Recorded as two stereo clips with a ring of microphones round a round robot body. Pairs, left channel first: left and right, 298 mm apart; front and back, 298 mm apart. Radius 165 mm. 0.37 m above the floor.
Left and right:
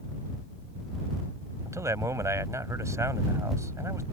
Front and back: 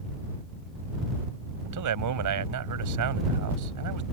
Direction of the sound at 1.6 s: 170° right.